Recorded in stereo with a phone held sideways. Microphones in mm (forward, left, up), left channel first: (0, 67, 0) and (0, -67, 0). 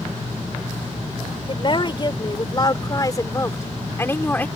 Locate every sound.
1.5 s a woman speaking: 40° left (ahead or behind); by 4.5 s 15° left (ahead or behind)